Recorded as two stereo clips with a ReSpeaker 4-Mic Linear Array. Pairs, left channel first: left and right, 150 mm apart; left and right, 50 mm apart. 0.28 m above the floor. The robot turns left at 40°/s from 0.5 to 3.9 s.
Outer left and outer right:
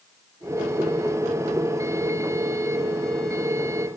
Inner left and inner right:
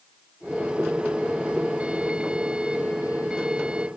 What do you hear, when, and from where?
Only background noise.